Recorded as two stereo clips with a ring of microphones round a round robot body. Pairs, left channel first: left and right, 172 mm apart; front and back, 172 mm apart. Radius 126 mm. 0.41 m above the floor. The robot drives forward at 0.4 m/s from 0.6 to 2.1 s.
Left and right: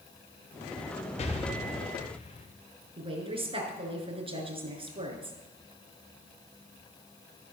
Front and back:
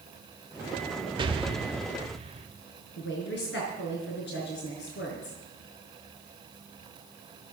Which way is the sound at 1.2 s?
130° left.